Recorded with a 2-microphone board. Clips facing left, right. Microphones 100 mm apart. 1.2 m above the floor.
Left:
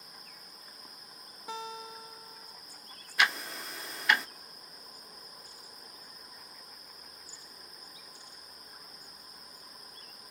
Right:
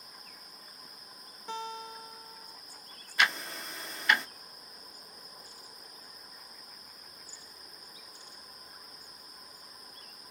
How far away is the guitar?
About 0.8 m.